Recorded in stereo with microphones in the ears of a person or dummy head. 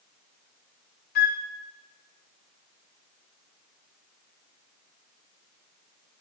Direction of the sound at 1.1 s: 55° left (ahead or behind).